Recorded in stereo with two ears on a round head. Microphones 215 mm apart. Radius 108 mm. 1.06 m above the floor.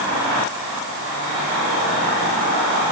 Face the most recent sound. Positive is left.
No sound to turn to.